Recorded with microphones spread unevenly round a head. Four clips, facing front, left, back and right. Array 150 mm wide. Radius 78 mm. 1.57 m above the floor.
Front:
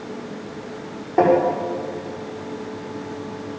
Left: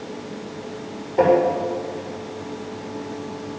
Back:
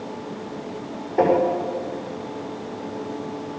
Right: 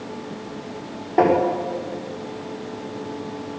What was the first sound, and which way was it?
Tapping, 30° right.